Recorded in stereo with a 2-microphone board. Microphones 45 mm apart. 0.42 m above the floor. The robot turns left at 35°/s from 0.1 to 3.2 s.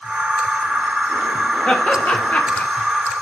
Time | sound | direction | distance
1.7 | laughter | 25° left (ahead or behind) | 1.3 m